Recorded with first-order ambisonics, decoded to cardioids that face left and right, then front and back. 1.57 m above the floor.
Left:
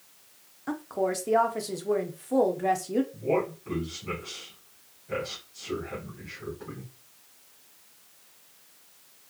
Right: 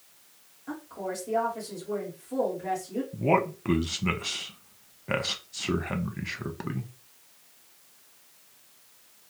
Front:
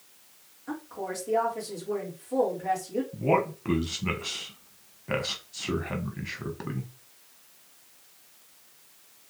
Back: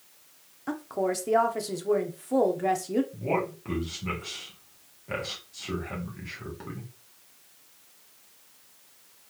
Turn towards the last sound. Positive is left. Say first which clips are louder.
# right 3 dB, front 4 dB
turn(degrees=-70)